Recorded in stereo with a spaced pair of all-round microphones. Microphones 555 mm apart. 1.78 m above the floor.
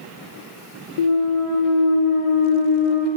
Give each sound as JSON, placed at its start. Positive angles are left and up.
{"t": 1.0, "sound": "a clunk", "side_deg": 70, "distance_m": 0.6}